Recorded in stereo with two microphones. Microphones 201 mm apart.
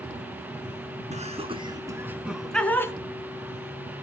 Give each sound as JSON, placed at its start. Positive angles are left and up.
{"t": 1.1, "sound": "laughter", "side_deg": -35, "distance_m": 1.9}